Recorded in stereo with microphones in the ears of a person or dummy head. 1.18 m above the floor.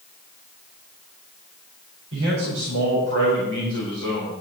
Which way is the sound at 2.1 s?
85° right.